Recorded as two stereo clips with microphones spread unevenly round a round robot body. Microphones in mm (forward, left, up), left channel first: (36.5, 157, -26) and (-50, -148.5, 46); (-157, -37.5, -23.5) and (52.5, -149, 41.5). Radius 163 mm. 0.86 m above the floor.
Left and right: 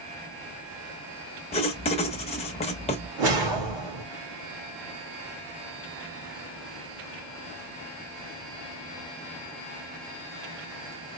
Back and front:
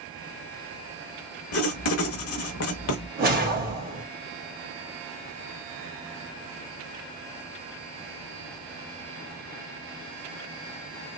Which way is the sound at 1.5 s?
155° left.